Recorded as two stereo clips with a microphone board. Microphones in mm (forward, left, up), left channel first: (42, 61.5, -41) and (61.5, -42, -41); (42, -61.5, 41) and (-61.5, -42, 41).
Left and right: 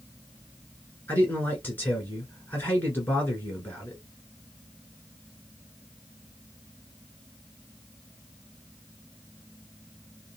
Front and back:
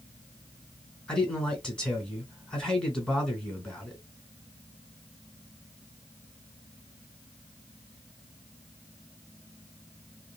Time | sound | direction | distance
1.1 | a man speaking | 60° left | 1.7 m